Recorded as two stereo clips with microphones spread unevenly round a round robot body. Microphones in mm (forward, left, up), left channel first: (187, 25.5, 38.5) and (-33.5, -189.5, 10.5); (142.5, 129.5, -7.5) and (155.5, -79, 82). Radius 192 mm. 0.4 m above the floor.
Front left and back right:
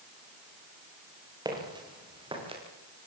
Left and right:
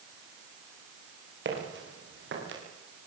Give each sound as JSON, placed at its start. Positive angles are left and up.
{"t": 1.4, "sound": "footsteps", "azimuth_deg": -60, "distance_m": 8.0}